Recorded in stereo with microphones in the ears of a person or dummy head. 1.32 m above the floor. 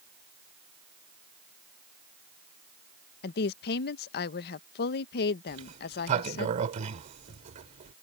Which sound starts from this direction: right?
A sliding door, at 5.5 s.